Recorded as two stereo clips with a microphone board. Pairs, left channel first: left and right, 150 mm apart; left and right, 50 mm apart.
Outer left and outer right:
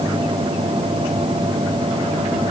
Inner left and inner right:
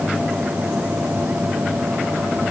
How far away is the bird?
I don't hear a bird.